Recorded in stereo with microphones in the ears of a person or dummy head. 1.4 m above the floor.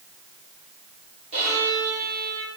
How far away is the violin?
About 4 m.